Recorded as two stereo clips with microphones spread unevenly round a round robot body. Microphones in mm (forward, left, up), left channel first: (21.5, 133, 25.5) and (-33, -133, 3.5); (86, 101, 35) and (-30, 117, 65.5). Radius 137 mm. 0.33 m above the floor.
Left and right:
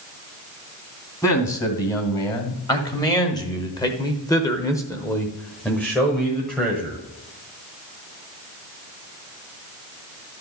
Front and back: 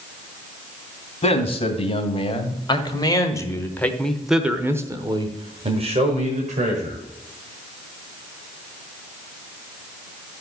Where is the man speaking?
Straight ahead, 2.5 m; by 7.0 s 170° left, 1.8 m.